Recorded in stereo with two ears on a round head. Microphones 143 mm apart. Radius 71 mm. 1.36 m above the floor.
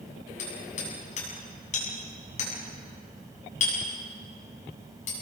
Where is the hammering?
50° left (ahead or behind), 8 m.